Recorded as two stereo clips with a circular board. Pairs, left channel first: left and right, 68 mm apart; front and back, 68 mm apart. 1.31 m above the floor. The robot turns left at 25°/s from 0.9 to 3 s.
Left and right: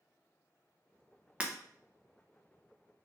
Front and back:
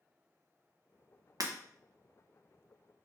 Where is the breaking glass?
160° right, 0.8 m; by 1.5 s 165° right, 0.8 m.